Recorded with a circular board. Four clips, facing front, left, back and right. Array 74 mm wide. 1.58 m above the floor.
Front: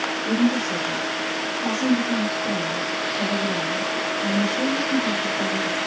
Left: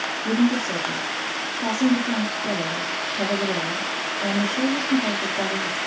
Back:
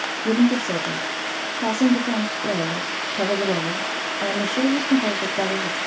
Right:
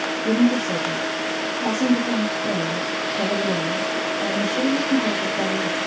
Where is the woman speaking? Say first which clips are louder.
Right 2 dB, back 3 dB; 165° right, 0.8 m.